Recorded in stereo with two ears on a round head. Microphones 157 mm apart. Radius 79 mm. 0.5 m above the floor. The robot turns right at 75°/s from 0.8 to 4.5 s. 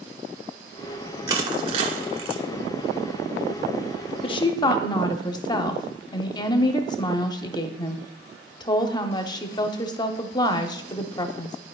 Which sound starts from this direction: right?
Crushing, at 1.3 s.